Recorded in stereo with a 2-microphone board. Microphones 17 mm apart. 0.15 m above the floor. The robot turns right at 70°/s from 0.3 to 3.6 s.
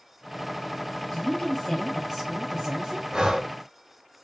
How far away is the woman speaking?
About 2.5 m.